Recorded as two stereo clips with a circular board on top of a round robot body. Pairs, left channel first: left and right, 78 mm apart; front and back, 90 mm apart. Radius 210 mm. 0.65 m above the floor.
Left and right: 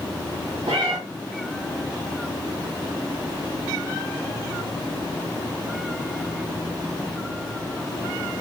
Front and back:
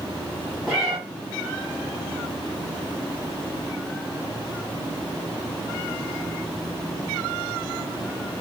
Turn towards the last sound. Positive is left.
turn(degrees=-95)